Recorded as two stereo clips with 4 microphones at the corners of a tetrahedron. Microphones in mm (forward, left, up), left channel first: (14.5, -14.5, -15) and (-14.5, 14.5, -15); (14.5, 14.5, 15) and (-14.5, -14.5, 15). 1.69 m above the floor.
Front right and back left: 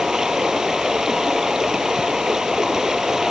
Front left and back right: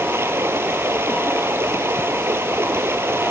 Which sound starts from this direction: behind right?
Running water, at 0.0 s.